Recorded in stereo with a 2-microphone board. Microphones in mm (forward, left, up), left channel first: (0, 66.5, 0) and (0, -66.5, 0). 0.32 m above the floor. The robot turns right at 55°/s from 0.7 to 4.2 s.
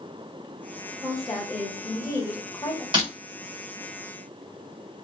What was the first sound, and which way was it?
A woman speaking, 5° right (ahead or behind).